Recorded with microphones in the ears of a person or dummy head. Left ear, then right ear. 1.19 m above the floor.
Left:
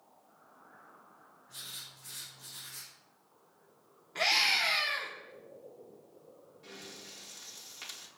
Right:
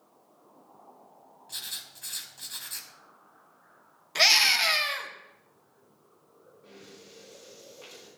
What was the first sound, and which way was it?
Writing, 60° right (ahead or behind).